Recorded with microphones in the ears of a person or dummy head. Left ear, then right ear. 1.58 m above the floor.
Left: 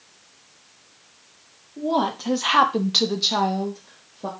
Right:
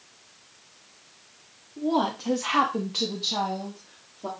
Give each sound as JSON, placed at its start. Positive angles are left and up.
{"t": 1.8, "sound": "a woman speaking", "side_deg": 5, "distance_m": 1.1}